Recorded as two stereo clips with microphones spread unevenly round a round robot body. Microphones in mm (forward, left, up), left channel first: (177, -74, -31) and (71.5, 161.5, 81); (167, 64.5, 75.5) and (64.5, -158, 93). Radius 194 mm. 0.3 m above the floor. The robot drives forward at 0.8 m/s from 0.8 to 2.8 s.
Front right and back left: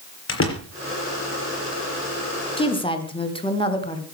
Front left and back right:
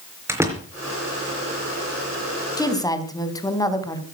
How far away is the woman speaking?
About 3.5 m.